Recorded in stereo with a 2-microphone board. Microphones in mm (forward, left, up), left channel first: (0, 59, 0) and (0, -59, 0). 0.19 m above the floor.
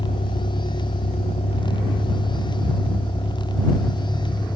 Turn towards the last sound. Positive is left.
turn(degrees=25)  # may be behind; listen again after turning